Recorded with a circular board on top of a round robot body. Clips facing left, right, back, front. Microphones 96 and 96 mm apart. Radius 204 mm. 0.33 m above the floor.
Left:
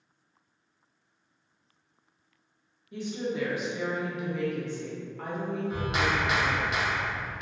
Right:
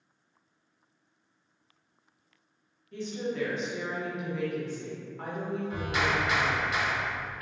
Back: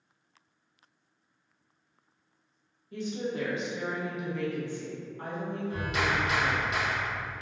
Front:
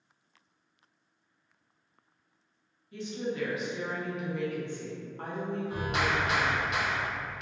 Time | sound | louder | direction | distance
2.9 | a woman speaking | left 1 dB, back 1 dB | 165° left | 1.3 m
5.7 | a clap | left 1 dB, even | 20° left | 1.6 m